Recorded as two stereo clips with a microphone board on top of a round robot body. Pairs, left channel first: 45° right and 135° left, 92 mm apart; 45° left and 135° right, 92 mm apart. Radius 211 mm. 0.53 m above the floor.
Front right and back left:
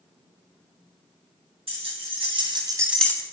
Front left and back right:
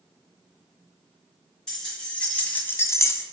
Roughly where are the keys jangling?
Behind left.